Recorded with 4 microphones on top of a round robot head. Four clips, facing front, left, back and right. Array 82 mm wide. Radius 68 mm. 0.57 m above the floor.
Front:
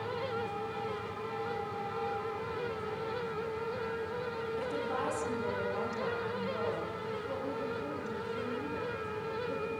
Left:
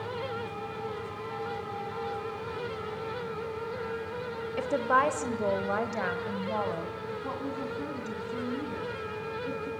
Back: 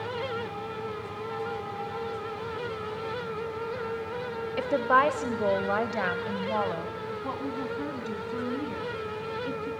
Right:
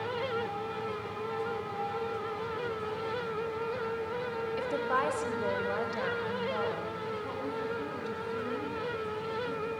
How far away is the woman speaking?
About 1.8 m.